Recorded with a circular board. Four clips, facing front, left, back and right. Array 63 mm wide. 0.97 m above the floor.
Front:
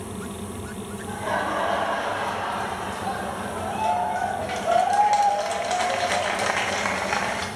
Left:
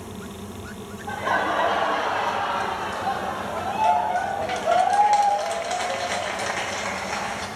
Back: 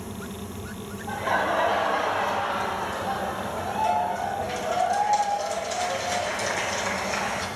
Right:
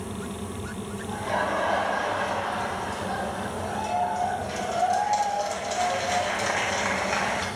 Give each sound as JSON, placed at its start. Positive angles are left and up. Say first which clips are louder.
{"t": 1.1, "sound": "laughter", "louder": "left 4 dB, back 2 dB", "azimuth_deg": 95, "distance_m": 4.0}